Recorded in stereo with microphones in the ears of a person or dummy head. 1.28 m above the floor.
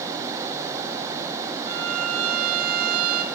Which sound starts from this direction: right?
A violin, at 1.7 s.